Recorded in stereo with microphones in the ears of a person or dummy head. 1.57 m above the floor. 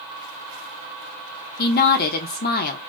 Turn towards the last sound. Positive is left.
turn(degrees=50)  # may be behind; listen again after turning